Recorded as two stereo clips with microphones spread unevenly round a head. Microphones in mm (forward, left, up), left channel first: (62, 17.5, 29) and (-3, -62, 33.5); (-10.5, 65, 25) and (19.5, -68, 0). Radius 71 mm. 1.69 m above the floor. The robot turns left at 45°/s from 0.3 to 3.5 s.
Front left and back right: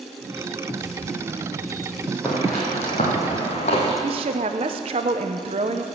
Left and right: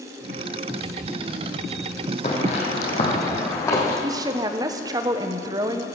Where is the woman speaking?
145° right, 0.7 m.